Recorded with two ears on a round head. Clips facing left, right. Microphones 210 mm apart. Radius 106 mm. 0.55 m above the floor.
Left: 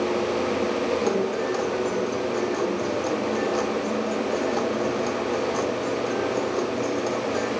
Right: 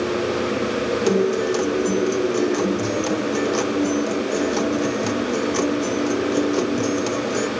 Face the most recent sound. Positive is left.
turn(degrees=-40)  # may be behind; listen again after turning